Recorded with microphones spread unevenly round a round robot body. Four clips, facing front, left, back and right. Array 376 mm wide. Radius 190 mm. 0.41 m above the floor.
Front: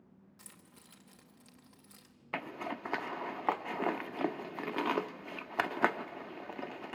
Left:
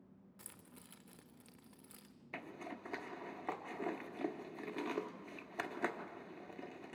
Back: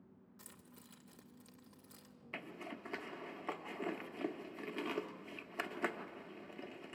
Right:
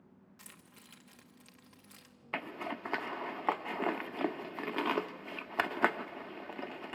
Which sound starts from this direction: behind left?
Keys jangling, at 0.4 s.